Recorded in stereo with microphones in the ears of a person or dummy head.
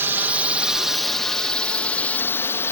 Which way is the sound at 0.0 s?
5° right (ahead or behind).